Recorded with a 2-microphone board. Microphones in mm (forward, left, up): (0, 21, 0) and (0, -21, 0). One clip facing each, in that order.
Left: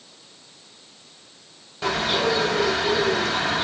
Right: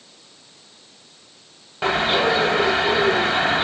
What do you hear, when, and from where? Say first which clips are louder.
1.8 s a bird: right 4 dB; 35° right (ahead or behind), 6.5 m